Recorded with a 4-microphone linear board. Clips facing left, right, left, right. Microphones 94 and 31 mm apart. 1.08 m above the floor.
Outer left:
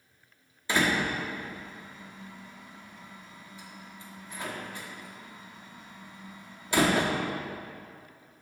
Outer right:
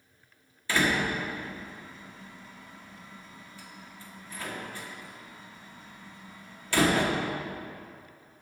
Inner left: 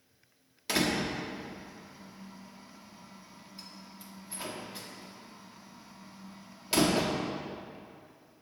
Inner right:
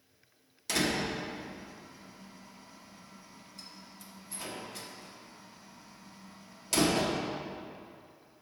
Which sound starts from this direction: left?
A door slam, at 0.7 s.